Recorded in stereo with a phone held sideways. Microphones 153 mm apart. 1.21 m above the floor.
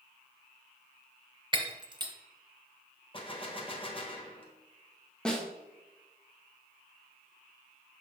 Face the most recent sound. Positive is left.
turn(degrees=5)  # may be behind; listen again after turning